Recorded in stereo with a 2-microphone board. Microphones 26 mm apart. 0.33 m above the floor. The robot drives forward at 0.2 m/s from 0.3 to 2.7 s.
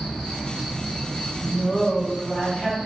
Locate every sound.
0.0 s an insect: 5° left (ahead or behind), 0.9 m
1.4 s a woman speaking: 25° left (ahead or behind), 1.6 m